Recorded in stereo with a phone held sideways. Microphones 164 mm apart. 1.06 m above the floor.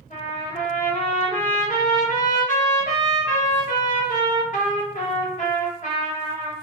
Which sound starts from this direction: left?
A trumpet, at 0.1 s.